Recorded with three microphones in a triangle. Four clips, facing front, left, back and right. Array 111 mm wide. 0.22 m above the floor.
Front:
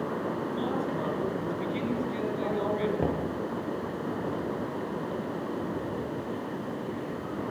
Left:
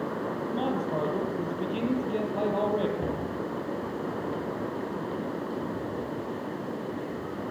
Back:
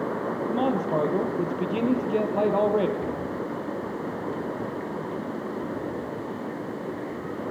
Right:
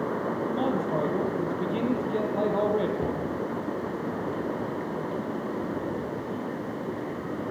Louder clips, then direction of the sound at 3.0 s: Right 2 dB, front 1 dB; 5° right.